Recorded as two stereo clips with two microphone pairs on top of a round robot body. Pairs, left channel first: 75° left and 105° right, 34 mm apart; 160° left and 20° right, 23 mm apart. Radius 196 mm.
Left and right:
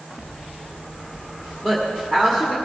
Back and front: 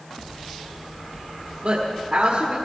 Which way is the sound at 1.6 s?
Straight ahead.